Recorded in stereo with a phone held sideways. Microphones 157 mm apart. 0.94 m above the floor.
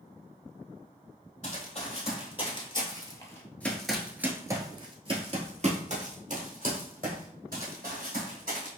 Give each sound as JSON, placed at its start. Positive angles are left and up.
{"t": 1.4, "sound": "running footsteps", "side_deg": 45, "distance_m": 1.8}